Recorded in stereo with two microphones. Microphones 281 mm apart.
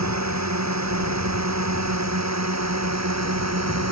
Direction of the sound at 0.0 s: 70° right (ahead or behind).